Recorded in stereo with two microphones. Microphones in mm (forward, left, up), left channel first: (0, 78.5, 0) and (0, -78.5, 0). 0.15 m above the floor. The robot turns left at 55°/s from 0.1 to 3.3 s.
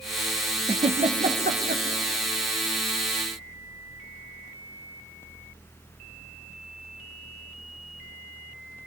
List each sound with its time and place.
0.7 s a giggle: 30° right (ahead or behind), 2.5 m; by 1.8 s 85° right, 2.5 m